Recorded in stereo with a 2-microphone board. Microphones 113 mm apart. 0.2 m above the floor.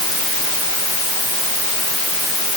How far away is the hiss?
I don't hear a hiss.